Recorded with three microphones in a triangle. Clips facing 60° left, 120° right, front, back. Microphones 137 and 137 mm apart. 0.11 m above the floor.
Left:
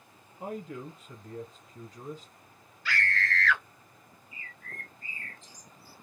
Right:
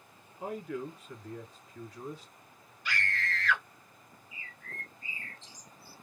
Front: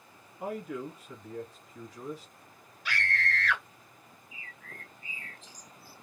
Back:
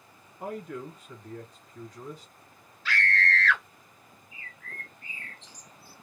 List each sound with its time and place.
0.4 s a man speaking: 75° left, 1.9 m
2.9 s a scream: 65° right, 1.2 m
4.3 s a bird: 80° left, 0.9 m